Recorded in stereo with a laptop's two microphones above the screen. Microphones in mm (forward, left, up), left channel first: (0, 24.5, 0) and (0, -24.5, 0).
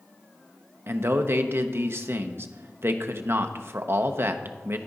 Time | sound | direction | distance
0.9 | a man speaking | 55° right (ahead or behind) | 0.6 m